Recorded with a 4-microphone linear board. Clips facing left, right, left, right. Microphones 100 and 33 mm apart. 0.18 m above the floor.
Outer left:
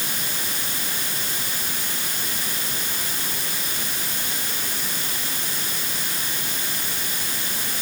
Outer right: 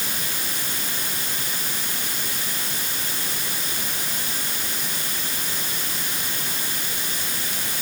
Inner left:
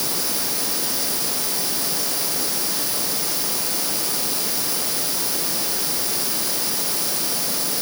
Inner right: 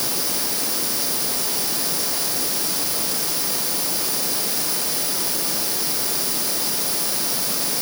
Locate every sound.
Only background noise.